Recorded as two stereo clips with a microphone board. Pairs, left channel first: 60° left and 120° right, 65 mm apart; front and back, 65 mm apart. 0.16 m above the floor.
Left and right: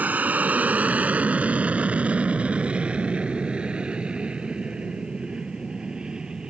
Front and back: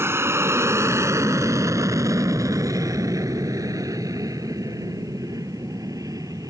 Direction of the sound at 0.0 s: 170° right.